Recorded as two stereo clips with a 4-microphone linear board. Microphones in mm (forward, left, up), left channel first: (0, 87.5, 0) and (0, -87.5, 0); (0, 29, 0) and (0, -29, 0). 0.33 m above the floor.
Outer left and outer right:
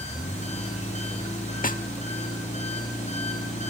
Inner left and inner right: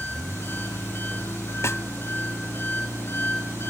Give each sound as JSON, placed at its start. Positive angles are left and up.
{"t": 0.0, "sound": "an engine running", "side_deg": 40, "distance_m": 5.5}
{"t": 1.6, "sound": "a snare drum", "side_deg": 50, "distance_m": 0.6}